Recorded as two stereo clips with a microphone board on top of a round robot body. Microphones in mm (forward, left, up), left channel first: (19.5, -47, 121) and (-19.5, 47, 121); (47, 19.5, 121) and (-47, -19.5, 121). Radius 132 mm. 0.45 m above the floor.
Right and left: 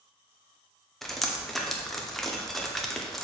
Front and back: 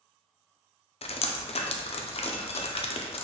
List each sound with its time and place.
1.0 s dripping: 20° left, 0.6 m